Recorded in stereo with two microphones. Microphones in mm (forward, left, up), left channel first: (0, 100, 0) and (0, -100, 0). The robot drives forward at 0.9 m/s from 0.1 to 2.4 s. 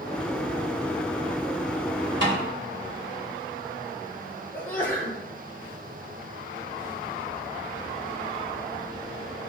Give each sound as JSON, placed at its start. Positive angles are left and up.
{"t": 2.2, "sound": "a snare drum", "side_deg": -65, "distance_m": 5.0}
{"t": 4.5, "sound": "a sneeze", "side_deg": 10, "distance_m": 7.0}